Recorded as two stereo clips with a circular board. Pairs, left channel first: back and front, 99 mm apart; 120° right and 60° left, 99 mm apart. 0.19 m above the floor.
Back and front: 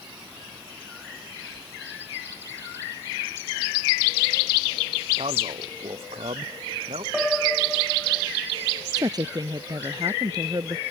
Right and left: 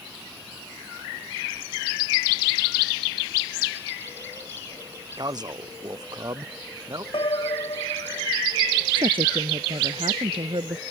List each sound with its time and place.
5.2 s a man speaking: 15° left; by 7.0 s 10° left
7.1 s a piano: 90° right
9.0 s a woman speaking: 45° left